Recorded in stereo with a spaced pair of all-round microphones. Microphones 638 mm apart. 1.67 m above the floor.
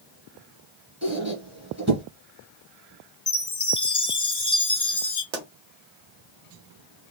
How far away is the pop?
About 1.0 m.